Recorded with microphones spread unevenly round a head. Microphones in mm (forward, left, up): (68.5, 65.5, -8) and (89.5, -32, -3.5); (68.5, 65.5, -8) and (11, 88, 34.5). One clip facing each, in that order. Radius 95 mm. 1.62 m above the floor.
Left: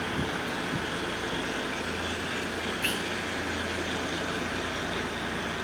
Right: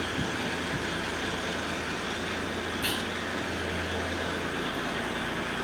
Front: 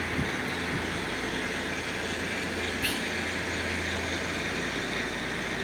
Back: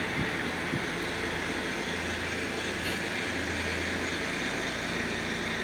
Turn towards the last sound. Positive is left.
turn(degrees=-15)